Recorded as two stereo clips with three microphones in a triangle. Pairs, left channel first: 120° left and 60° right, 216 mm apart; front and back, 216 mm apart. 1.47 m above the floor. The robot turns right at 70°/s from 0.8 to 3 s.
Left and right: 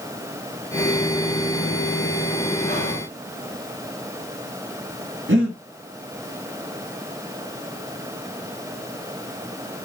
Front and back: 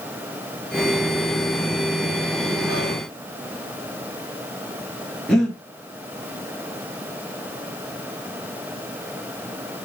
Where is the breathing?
85° right, 1.0 m.